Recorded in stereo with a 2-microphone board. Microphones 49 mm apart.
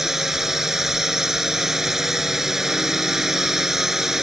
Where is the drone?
10° right (ahead or behind).